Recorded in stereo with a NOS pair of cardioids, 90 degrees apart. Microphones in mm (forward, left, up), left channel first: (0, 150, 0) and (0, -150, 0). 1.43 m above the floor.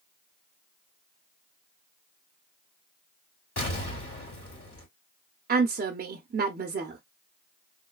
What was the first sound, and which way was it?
An explosion, 45° left.